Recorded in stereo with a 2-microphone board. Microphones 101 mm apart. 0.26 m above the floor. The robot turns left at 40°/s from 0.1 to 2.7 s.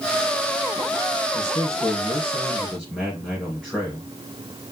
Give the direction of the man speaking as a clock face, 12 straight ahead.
10 o'clock.